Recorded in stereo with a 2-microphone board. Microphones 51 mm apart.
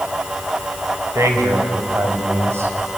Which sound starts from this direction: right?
A man speaking, at 1.1 s.